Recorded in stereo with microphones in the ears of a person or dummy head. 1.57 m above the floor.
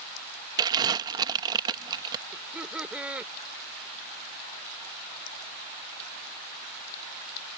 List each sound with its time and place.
0.6 s crumpling: 20° right (ahead or behind)
2.3 s laughter: 5° right (ahead or behind)